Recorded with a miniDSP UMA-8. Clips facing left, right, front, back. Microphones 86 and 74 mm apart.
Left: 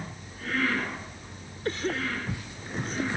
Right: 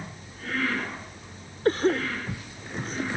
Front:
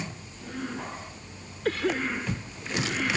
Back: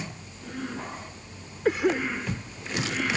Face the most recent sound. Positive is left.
turn(degrees=-110)